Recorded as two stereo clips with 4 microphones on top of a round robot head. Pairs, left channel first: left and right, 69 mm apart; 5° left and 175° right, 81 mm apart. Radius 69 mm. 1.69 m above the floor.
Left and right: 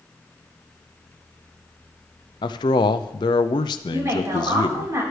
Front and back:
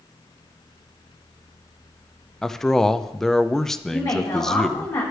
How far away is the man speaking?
About 0.5 m.